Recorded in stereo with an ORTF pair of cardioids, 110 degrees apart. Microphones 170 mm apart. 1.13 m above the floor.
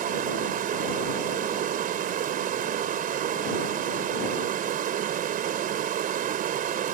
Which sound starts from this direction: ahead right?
Running water, at 0.0 s.